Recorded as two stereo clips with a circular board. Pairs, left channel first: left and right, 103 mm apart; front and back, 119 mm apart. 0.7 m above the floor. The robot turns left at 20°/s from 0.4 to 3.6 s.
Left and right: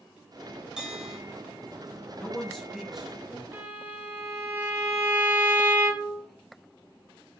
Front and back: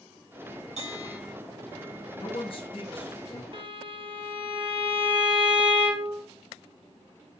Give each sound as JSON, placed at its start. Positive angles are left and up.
{"t": 0.8, "sound": "a bell", "azimuth_deg": -170, "distance_m": 1.6}
{"t": 2.1, "sound": "a man speaking", "azimuth_deg": 10, "distance_m": 0.9}
{"t": 3.5, "sound": "a violin", "azimuth_deg": -150, "distance_m": 0.5}